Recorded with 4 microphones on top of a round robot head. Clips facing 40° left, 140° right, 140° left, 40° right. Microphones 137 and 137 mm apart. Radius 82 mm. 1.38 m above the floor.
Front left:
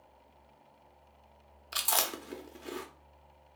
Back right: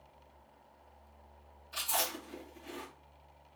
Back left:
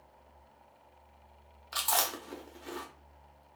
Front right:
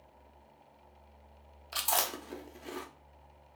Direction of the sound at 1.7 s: 35° left.